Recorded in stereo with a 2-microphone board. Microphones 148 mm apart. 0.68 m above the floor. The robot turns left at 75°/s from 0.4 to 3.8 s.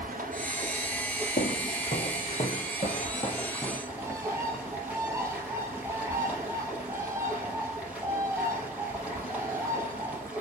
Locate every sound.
0.0 s running water: 115° right, 3.5 m; by 10.4 s 10° right, 3.5 m
1.4 s footsteps: 70° left (ahead or behind), 1.7 m; by 3.8 s 5° right (ahead or behind), 3 m
3.9 s a bird: 20° right (ahead or behind), 2 m